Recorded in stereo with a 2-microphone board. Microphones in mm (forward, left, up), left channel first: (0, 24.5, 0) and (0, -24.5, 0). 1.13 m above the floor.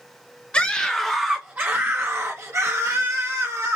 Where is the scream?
25° left (ahead or behind), 0.8 m; by 3.8 s 90° right, 1.8 m.